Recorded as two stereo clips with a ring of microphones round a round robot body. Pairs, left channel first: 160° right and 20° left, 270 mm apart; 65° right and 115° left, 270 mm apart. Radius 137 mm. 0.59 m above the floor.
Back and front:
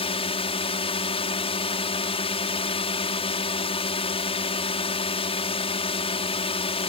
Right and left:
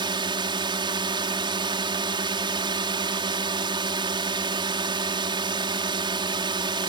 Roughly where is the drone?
Behind.